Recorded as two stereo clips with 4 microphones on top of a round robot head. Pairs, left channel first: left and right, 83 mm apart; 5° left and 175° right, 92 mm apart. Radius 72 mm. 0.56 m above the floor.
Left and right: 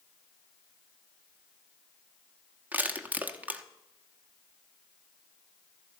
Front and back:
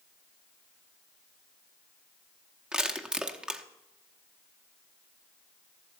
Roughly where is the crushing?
Behind right.